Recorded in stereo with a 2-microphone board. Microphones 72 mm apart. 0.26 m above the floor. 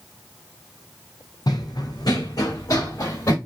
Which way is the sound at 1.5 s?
65° left (ahead or behind).